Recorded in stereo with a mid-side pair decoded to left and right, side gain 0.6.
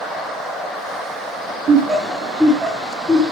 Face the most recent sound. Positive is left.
turn(degrees=30)